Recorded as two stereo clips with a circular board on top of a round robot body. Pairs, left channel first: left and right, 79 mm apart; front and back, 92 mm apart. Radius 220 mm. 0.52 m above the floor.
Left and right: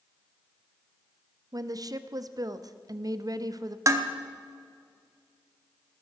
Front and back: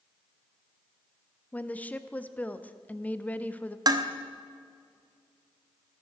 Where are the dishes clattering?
135° right, 1.1 m.